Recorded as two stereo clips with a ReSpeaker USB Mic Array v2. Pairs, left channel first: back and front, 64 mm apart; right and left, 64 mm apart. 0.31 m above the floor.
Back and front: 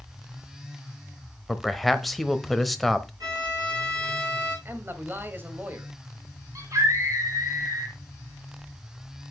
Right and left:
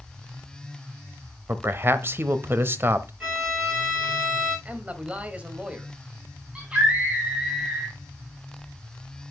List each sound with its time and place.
1.5 s a man speaking: 95° left, 1.0 m
3.2 s a violin: 15° left, 5.5 m
4.7 s a man speaking: 35° left, 1.7 m
6.5 s a scream: 20° left, 2 m